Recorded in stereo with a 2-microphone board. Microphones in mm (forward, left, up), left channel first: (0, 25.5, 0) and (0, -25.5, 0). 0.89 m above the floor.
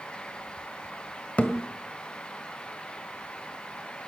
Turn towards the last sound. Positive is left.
turn(degrees=30)  # may be behind; listen again after turning